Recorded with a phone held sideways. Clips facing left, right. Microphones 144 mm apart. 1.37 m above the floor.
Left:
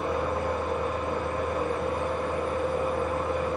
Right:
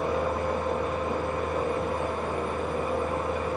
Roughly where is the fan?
Right.